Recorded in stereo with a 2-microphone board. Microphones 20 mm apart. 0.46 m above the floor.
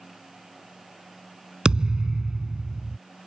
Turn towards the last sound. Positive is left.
turn(degrees=-50)  # may be behind; listen again after turning